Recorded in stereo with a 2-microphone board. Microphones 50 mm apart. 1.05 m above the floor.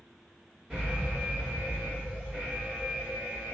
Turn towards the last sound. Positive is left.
turn(degrees=-20)  # may be behind; listen again after turning